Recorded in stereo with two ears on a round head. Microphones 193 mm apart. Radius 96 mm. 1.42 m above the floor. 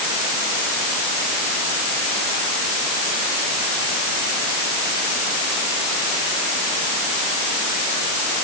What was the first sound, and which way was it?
Only background noise.